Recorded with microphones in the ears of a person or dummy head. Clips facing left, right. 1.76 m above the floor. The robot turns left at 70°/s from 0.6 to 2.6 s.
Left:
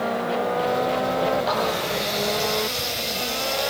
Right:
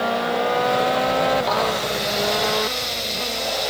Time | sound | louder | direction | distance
1.4 | a running tap | right 2 dB | straight behind | 8 m